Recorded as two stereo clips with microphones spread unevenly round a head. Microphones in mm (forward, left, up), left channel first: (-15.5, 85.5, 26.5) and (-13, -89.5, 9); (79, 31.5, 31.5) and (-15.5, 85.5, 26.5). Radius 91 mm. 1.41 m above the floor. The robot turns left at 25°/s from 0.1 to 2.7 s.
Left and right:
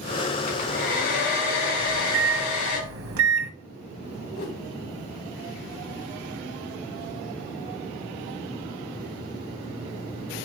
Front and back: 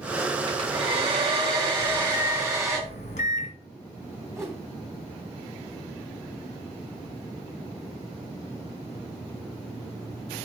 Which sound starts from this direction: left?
A whoosh, at 4.3 s.